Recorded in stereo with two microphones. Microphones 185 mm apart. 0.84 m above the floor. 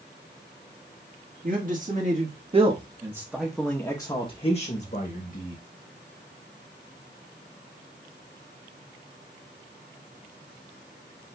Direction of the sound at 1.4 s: 50° right (ahead or behind).